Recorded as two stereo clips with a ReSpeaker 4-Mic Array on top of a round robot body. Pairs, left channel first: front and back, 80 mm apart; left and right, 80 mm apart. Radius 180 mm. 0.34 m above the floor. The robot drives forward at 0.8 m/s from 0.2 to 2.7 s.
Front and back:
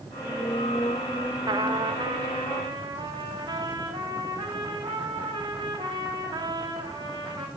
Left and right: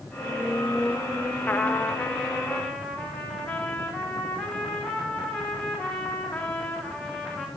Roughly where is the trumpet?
Behind left.